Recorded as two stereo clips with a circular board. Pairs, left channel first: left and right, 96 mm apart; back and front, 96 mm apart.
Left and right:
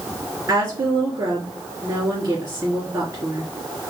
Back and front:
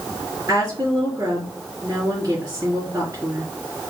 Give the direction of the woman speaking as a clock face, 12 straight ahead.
2 o'clock.